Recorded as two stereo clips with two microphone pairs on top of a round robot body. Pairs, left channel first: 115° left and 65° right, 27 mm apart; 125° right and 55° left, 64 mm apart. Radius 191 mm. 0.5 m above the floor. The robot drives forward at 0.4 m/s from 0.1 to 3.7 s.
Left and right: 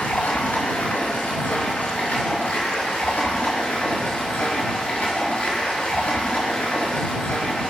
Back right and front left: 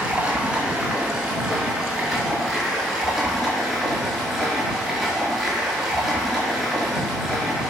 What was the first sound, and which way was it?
Running water, 135° left.